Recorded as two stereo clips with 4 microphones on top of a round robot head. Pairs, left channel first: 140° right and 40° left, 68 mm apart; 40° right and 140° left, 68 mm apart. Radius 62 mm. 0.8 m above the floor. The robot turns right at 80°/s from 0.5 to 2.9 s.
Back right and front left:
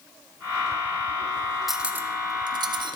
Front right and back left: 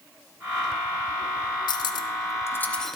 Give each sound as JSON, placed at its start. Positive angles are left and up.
{"t": 1.7, "sound": "cutlery clinking", "azimuth_deg": -50, "distance_m": 0.7}